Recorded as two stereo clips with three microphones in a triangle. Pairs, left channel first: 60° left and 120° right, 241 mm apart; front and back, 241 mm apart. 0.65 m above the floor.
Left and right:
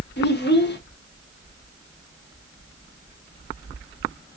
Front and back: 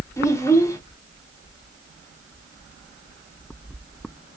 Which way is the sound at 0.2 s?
75° left.